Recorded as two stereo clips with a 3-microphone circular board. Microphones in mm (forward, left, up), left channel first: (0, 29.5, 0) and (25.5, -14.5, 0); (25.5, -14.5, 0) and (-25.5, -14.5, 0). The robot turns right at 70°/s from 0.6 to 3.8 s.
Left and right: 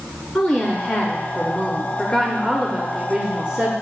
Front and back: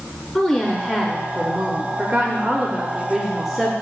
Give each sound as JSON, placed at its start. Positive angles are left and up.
{"t": 0.3, "sound": "a woman speaking", "azimuth_deg": 60, "distance_m": 1.0}